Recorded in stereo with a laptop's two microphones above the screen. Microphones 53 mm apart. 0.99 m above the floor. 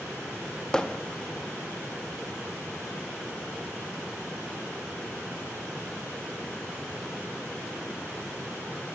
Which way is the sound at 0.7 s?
15° left (ahead or behind).